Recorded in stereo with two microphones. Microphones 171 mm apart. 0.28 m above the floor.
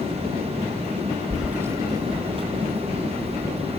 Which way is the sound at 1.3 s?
Centre (ahead or behind).